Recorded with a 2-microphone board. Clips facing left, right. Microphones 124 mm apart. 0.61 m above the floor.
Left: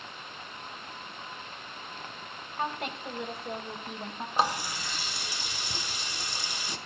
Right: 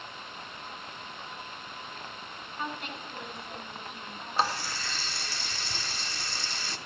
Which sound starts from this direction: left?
A woman speaking, at 2.6 s.